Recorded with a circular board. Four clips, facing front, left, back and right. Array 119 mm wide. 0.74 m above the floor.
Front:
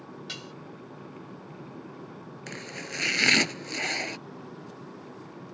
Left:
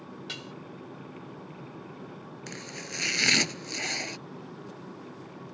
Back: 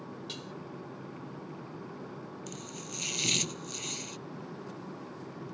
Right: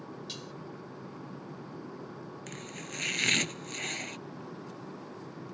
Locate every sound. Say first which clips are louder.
0.3 s dishes clattering: left 2 dB, front 1 dB; 55° left
2.5 s chopping: left 2 dB, front 3 dB; 20° left